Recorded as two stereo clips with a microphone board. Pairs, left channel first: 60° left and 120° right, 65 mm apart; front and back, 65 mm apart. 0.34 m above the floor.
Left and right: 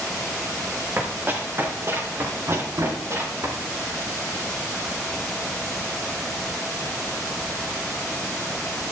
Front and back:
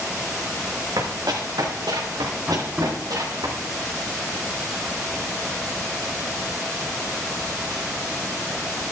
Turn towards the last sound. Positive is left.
turn(degrees=-115)